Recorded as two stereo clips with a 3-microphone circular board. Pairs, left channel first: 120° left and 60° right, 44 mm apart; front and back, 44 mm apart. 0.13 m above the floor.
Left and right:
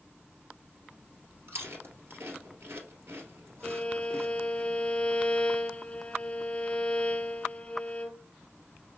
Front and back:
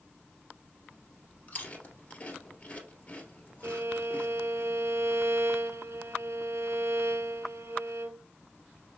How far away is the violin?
About 0.5 m.